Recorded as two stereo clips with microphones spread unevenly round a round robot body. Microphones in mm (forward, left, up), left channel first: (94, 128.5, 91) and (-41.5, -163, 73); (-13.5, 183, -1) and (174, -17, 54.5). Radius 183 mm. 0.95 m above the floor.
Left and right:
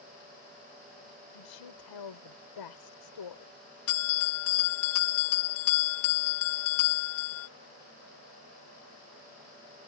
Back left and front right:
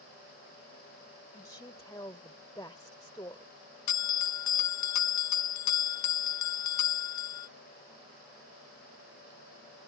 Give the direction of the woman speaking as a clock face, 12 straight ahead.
10 o'clock.